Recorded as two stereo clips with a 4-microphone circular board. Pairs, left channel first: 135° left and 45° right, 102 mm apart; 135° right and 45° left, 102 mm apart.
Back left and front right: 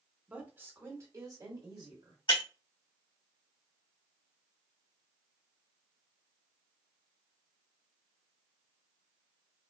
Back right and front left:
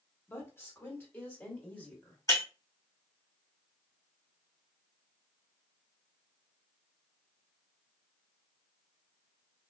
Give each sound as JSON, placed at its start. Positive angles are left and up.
{"t": 0.3, "sound": "a woman speaking", "azimuth_deg": -105, "distance_m": 1.3}
{"t": 2.3, "sound": "breaking glass", "azimuth_deg": 170, "distance_m": 2.5}